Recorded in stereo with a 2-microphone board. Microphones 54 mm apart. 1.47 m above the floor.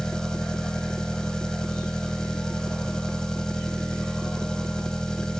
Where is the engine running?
10° left (ahead or behind).